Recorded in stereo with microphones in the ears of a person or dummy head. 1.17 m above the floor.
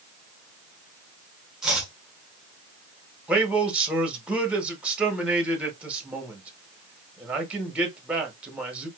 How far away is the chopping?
About 1.6 m.